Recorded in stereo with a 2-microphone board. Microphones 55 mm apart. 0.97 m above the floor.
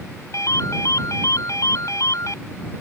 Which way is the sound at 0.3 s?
70° left (ahead or behind).